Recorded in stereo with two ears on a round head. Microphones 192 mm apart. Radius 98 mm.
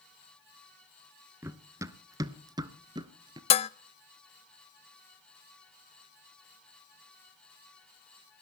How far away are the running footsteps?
About 1.2 m.